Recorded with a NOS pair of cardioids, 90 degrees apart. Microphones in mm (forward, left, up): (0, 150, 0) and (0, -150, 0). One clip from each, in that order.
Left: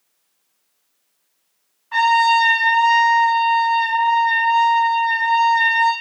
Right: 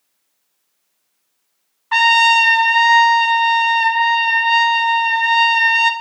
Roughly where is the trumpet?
Ahead right.